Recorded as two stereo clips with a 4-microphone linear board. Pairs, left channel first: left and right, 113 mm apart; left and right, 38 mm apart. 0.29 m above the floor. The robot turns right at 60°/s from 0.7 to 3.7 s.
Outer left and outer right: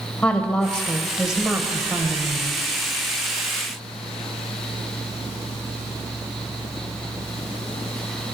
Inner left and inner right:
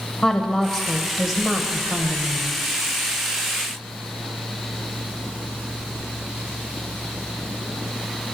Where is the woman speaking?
10° left (ahead or behind), 1.0 m; by 2.6 s 25° right (ahead or behind), 1.0 m.